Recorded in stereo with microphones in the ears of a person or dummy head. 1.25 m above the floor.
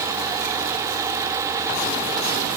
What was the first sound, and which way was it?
Only background noise.